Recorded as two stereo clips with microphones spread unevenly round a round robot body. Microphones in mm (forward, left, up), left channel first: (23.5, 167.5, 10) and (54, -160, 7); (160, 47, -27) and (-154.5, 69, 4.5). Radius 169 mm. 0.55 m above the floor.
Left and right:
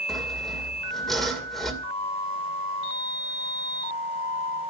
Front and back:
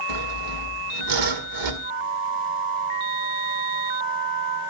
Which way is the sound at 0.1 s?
175° right.